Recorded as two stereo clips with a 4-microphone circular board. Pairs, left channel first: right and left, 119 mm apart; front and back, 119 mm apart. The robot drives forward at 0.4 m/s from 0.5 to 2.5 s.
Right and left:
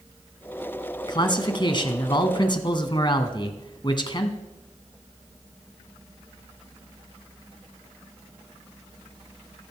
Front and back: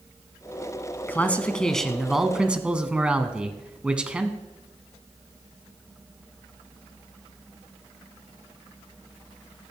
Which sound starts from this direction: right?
A man speaking, at 1.1 s.